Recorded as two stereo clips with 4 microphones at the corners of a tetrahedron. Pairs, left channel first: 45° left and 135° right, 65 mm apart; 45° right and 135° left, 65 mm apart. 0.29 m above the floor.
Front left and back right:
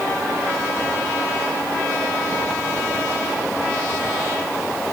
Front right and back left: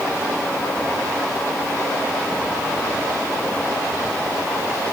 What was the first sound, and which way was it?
Only background noise.